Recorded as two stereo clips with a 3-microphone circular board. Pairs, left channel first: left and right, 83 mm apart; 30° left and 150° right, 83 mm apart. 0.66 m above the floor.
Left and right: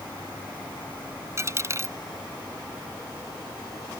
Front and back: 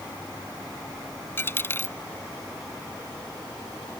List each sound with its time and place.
1.4 s a dropped coin: 35° right